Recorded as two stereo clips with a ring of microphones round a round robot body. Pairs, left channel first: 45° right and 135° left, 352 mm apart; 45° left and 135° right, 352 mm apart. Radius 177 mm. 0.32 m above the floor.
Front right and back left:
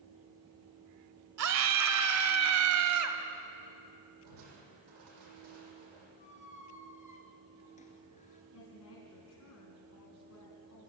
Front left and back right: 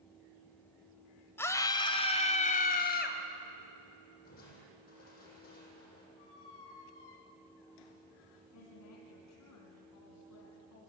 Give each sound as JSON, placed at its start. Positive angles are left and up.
{"t": 1.4, "sound": "a scream", "azimuth_deg": 125, "distance_m": 1.7}
{"t": 4.2, "sound": "crushing", "azimuth_deg": 110, "distance_m": 7.0}
{"t": 6.2, "sound": "a squeak", "azimuth_deg": 25, "distance_m": 2.5}
{"t": 8.5, "sound": "a woman speaking", "azimuth_deg": 5, "distance_m": 4.0}